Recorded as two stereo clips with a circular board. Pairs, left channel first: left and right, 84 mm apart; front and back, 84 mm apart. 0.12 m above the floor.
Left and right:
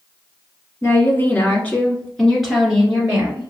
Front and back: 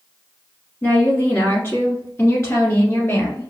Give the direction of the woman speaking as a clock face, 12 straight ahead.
10 o'clock.